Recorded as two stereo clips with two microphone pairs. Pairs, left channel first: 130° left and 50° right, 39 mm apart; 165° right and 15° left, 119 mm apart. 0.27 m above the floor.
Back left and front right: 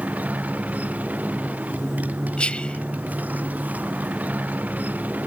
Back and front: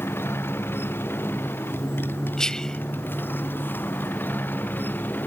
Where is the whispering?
115° left.